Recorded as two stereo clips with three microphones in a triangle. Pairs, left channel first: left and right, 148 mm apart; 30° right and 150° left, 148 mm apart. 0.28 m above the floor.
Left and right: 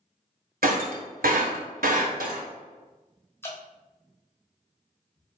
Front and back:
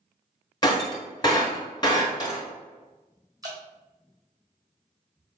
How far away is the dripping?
About 1.5 m.